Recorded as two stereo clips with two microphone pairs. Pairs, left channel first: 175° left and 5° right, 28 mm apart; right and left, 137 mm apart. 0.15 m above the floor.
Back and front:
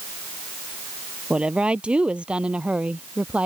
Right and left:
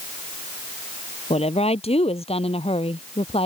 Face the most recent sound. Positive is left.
turn(degrees=-45)